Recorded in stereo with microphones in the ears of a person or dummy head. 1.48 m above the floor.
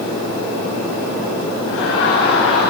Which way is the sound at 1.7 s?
75° left (ahead or behind).